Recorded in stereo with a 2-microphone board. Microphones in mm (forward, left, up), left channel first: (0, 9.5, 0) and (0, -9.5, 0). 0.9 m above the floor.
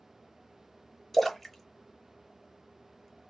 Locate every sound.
1.1 s a splash: 5° left (ahead or behind), 0.8 m